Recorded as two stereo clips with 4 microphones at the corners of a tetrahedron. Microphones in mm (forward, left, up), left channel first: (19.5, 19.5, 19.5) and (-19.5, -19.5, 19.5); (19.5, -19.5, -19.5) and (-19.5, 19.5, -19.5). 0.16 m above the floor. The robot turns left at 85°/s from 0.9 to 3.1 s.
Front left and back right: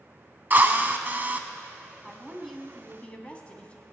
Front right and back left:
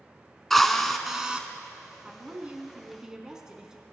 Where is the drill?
130° right, 0.7 m; by 1.4 s 175° right, 0.7 m.